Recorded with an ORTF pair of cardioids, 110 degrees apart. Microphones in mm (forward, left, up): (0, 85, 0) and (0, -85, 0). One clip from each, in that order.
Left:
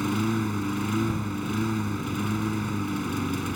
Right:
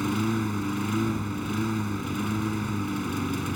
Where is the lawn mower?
Straight ahead.